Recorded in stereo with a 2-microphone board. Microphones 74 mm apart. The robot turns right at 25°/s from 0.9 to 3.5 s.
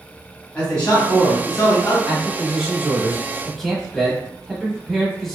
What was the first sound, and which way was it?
A man speaking, 15° left (ahead or behind).